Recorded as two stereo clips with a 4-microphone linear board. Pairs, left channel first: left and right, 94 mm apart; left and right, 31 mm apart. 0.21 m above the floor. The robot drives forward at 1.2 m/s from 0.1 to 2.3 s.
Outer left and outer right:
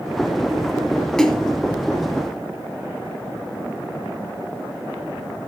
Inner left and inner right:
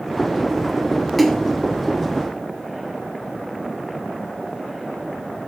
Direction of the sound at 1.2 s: 10° left (ahead or behind).